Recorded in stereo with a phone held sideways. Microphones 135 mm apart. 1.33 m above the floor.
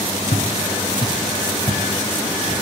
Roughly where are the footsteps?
Left.